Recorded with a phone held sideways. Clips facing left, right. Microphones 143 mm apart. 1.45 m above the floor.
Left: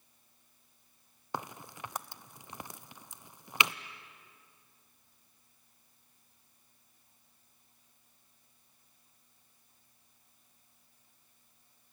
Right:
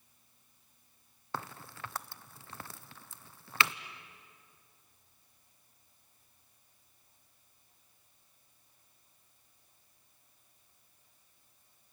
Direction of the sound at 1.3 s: 15° left (ahead or behind).